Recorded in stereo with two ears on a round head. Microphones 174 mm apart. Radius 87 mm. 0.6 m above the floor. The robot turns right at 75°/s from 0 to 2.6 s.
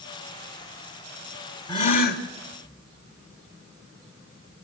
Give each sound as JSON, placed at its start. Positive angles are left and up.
{"t": 1.7, "sound": "a gasp", "azimuth_deg": 20, "distance_m": 1.2}